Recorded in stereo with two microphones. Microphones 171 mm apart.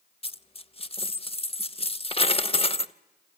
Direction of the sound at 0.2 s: 35° left (ahead or behind).